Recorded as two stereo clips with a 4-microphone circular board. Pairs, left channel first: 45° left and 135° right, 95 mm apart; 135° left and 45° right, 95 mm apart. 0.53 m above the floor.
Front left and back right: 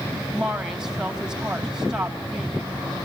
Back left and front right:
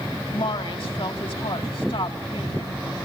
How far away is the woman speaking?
About 3 m.